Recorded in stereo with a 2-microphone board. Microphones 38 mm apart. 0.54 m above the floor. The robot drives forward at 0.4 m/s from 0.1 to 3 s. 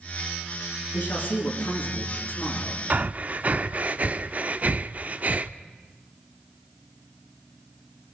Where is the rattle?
No rattle in this recording.